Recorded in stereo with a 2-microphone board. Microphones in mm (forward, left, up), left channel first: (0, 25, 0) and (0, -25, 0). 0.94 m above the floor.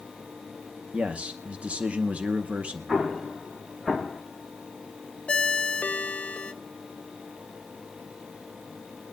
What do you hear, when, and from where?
0.9 s a man speaking: 25° right (ahead or behind), 0.8 m
2.9 s an explosion: 5° right (ahead or behind), 1.1 m
5.3 s a ringtone: 25° left (ahead or behind), 0.7 m